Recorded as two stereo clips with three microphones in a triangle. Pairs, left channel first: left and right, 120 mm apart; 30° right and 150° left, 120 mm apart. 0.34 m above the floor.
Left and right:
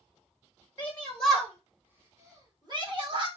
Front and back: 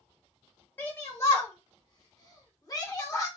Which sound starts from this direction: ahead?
A shout, at 0.8 s.